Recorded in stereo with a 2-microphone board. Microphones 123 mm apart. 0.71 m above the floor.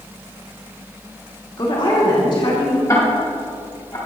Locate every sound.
1.6 s a woman speaking: 45° left (ahead or behind), 2 m
2.9 s ticking: 25° left (ahead or behind), 4 m